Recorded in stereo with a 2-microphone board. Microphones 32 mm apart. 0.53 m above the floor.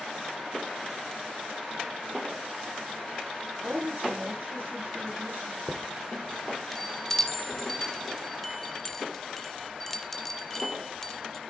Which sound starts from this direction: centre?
A chime, at 5.7 s.